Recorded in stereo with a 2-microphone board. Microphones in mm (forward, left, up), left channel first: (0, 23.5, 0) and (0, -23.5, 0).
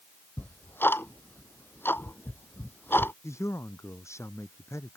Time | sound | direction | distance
0.4 | ticking | 45° left (ahead or behind) | ?
3.2 | a man speaking | 80° left | ?